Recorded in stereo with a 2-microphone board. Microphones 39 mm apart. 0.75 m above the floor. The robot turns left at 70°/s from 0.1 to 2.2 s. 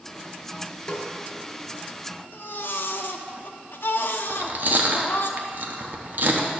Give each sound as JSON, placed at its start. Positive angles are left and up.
{"t": 0.9, "sound": "a snare drum", "side_deg": 20, "distance_m": 1.4}
{"t": 2.3, "sound": "a baby crying", "side_deg": 65, "distance_m": 0.7}
{"t": 4.3, "sound": "chewing", "side_deg": -50, "distance_m": 0.9}